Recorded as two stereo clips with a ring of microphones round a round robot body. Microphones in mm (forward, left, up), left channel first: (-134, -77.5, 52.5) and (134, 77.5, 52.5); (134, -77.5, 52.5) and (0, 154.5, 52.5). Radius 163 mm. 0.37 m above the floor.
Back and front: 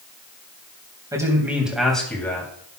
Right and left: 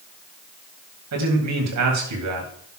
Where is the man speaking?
110° left, 3 m; by 2.5 s 130° left, 3 m.